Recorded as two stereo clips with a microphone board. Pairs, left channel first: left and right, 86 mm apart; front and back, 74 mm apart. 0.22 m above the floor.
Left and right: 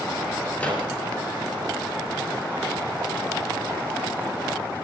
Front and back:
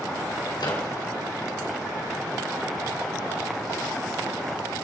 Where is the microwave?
15° left, 3 m.